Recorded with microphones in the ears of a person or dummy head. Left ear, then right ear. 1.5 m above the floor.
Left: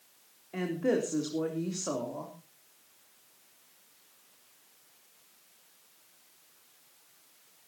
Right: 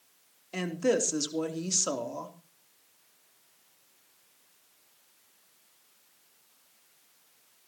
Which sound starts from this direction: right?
A woman speaking, at 0.5 s.